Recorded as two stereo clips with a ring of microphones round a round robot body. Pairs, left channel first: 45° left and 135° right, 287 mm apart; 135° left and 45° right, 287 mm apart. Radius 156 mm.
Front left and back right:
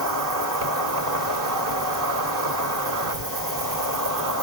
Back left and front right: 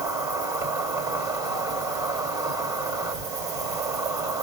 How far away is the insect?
About 2.5 m.